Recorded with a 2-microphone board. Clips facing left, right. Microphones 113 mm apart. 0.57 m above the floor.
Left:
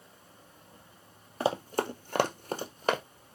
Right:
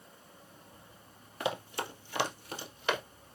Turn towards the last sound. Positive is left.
turn(degrees=35)  # may be behind; listen again after turning